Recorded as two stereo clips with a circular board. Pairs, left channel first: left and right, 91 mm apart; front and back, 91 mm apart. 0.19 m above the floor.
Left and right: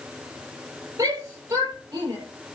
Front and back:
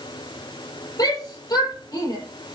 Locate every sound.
1.0 s a shout: 45° right, 7.5 m